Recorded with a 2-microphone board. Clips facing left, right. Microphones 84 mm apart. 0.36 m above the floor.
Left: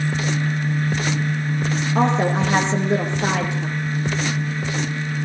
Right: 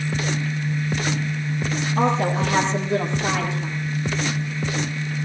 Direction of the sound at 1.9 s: 65° left (ahead or behind).